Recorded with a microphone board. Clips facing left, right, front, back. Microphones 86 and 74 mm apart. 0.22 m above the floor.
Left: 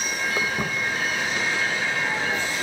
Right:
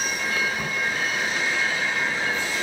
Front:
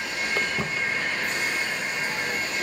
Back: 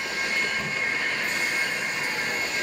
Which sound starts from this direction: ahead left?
Footsteps, at 0.4 s.